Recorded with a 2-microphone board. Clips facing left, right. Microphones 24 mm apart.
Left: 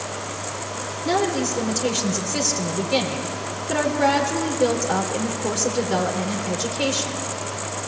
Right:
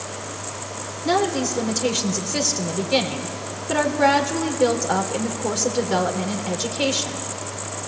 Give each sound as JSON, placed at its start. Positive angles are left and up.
{"t": 1.1, "sound": "a woman speaking", "side_deg": -10, "distance_m": 3.0}